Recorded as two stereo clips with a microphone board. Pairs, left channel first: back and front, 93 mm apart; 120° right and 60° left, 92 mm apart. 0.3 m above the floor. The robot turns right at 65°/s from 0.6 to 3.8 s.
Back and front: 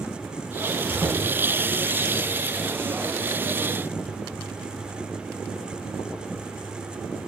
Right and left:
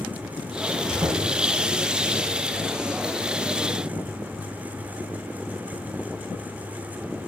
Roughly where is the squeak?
Left.